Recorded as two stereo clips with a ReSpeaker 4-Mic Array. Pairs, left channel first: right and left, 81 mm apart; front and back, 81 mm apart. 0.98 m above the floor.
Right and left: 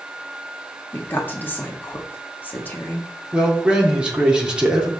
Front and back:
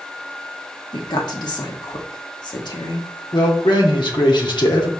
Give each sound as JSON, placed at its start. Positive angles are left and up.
{"t": 0.9, "sound": "a woman speaking", "azimuth_deg": -25, "distance_m": 1.5}
{"t": 3.3, "sound": "a man speaking", "azimuth_deg": 15, "distance_m": 2.0}